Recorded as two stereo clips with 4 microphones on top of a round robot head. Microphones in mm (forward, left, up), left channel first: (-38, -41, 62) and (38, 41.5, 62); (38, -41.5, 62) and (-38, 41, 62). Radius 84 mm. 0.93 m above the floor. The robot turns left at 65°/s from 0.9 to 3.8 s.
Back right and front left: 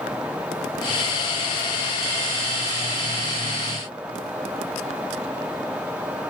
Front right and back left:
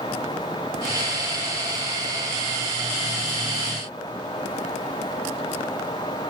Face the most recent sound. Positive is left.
No sound to turn to.